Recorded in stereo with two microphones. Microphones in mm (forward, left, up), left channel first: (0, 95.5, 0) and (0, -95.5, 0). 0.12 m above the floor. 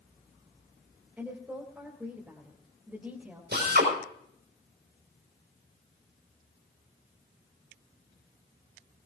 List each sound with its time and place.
1.2 s a woman speaking: 10° right (ahead or behind), 3 m
3.5 s a drill: 60° right (ahead or behind), 5.5 m